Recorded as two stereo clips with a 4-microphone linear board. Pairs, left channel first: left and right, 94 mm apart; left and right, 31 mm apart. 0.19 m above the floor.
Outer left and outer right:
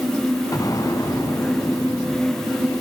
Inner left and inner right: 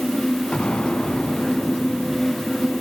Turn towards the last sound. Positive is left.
turn(degrees=40)  # may be behind; listen again after turning